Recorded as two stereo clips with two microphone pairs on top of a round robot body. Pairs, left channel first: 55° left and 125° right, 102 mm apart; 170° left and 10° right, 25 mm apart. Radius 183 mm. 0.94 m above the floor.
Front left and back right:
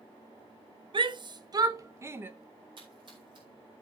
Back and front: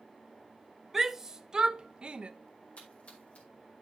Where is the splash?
165° right, 5 m.